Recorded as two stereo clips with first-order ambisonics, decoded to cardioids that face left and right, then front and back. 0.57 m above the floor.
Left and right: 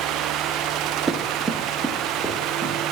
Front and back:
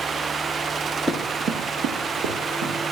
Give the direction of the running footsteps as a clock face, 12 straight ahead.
3 o'clock.